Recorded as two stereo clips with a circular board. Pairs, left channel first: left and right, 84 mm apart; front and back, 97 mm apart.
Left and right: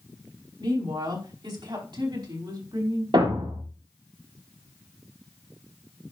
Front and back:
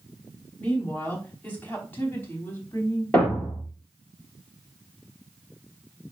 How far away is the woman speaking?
About 4.5 m.